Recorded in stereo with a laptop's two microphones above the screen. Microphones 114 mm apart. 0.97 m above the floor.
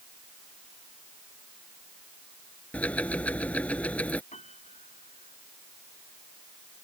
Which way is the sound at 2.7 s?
10° left (ahead or behind).